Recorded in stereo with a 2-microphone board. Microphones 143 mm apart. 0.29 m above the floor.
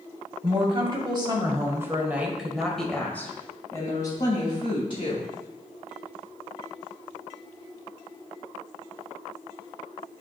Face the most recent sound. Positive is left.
turn(degrees=45)  # may be behind; listen again after turning